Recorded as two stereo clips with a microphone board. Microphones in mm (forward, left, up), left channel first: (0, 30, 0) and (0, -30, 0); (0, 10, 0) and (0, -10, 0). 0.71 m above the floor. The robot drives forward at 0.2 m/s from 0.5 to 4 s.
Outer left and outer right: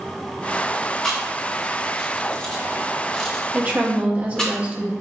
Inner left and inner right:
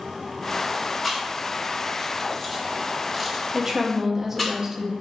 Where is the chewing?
10° left (ahead or behind), 1.1 m; by 4.5 s 15° left (ahead or behind), 0.7 m.